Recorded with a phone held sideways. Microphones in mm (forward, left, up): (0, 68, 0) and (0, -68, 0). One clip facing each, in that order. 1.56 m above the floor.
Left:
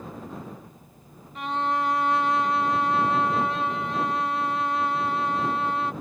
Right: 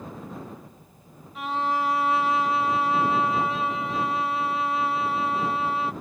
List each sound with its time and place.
1.4 s a violin: centre (ahead or behind)